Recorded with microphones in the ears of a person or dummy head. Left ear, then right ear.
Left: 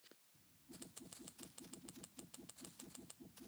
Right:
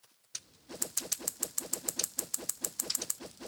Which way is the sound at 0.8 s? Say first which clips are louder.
Right 22 dB; 65° right (ahead or behind).